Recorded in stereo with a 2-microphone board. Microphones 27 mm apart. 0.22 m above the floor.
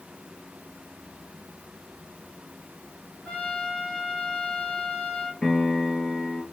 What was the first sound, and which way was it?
A trumpet, 55° left (ahead or behind).